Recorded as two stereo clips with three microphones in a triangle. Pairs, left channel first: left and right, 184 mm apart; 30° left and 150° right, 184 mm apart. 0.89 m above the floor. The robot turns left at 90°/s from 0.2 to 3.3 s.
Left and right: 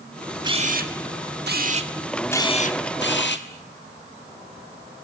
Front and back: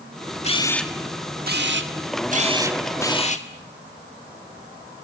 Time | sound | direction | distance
0.4 | a camera shutter | 25° right | 1.6 m